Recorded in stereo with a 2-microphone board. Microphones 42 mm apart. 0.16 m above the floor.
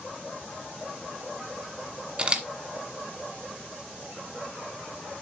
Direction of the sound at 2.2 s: 25° right (ahead or behind).